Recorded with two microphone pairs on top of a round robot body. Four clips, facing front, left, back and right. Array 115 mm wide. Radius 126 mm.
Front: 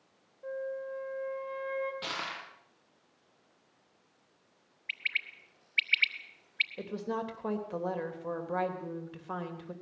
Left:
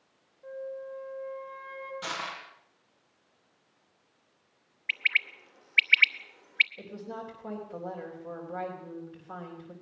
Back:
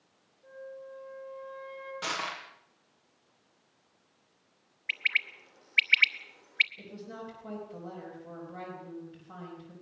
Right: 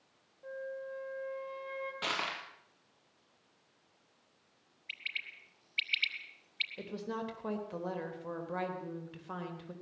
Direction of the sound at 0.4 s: 15° right.